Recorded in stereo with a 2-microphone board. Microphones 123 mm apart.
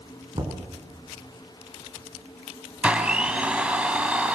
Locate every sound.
0.3 s knocking: 35° right (ahead or behind), 3 m
2.8 s a blender: 10° right (ahead or behind), 2.5 m